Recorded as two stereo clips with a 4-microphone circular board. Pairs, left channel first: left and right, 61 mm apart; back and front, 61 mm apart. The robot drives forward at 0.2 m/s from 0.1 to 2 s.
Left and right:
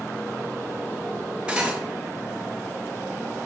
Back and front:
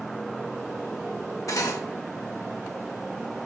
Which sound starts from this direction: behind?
Cutlery clinking, at 1.5 s.